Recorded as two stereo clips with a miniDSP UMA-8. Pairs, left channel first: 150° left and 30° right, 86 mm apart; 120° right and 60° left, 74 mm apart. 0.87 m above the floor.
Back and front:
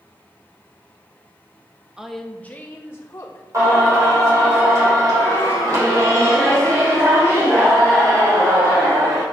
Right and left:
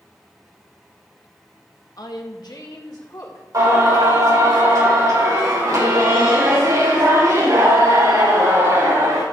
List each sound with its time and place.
2.0 s a woman speaking: 110° right, 1.0 m; by 3.4 s 155° right, 3 m
3.5 s singing: 20° left, 4.5 m